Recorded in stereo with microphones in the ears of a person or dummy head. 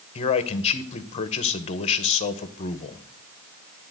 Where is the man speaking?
35° left (ahead or behind), 0.8 m.